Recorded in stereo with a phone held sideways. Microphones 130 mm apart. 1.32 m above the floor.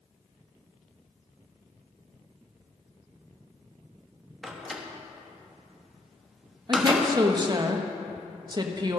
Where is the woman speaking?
35° right (ahead or behind), 1.1 m.